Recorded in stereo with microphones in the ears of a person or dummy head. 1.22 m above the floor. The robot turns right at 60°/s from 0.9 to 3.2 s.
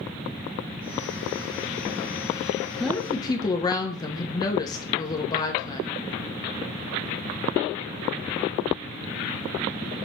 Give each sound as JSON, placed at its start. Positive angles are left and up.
{"t": 2.8, "sound": "a woman speaking", "side_deg": 0, "distance_m": 0.9}